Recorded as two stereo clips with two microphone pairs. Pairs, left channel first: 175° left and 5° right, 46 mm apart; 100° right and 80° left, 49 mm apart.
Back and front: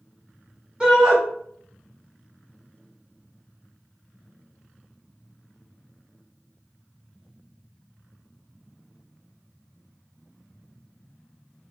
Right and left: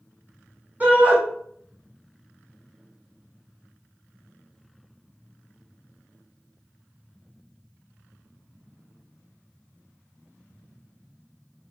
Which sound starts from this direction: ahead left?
A shout, at 0.8 s.